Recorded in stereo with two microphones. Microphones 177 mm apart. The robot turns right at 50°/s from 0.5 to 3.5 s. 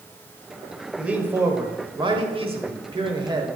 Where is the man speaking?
170° right, 1.5 m; by 3.5 s 50° right, 1.5 m.